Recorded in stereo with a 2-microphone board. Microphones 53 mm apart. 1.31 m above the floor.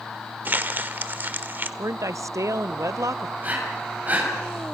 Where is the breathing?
35° right (ahead or behind), 7 m.